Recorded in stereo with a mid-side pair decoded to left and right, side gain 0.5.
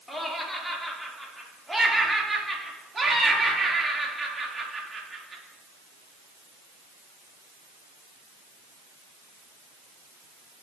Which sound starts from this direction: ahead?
Laughter, at 0.1 s.